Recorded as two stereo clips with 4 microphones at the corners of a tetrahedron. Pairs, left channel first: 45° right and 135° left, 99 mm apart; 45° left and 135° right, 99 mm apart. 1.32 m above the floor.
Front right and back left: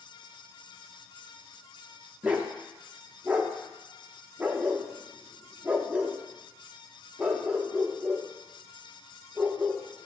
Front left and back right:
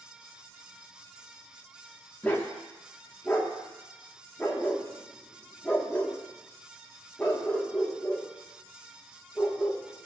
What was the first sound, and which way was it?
A dog barking, 80° left.